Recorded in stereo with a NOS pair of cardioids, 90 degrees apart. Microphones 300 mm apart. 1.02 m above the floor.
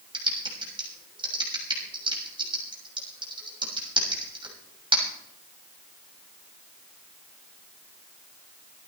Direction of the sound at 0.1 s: 15° right.